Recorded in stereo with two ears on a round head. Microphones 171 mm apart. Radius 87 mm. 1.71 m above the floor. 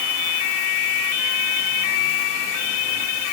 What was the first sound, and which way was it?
Only background noise.